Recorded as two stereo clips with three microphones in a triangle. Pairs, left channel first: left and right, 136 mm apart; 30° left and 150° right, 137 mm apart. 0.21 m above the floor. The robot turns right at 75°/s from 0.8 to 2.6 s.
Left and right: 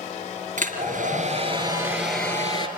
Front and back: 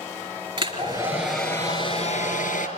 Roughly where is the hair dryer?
Right.